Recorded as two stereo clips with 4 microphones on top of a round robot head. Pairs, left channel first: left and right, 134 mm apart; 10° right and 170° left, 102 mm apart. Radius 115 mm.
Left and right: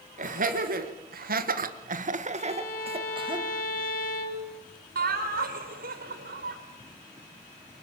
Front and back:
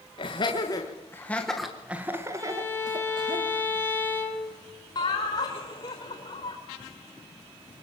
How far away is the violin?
About 6.5 m.